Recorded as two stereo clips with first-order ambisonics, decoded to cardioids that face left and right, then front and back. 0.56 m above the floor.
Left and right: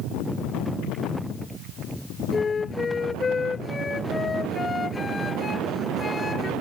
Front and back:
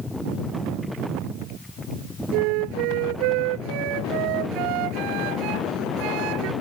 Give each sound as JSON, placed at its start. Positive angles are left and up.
{"t": 2.3, "sound": "a flute", "azimuth_deg": 165}